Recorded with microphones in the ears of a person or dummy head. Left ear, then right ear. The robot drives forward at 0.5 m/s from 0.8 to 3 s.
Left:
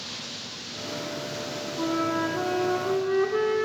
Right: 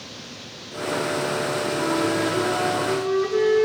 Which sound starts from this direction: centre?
A flute, at 1.8 s.